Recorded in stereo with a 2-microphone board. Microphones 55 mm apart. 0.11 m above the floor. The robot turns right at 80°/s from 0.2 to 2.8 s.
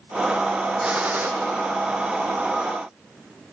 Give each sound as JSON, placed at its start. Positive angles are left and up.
{"t": 0.8, "sound": "a gunshot", "azimuth_deg": -170, "distance_m": 1.7}